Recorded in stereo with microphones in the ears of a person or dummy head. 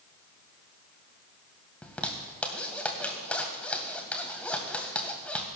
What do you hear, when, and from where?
1.8 s a zipper: 10° left (ahead or behind), 1.9 m